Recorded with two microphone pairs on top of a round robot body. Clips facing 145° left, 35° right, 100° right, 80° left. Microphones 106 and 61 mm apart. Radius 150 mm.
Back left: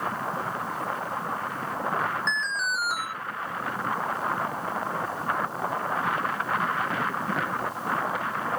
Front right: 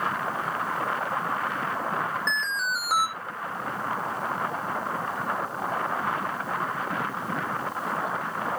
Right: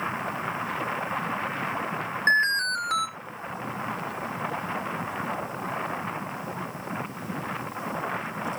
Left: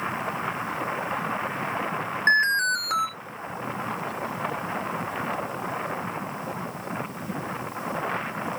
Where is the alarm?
Straight ahead, 3 m.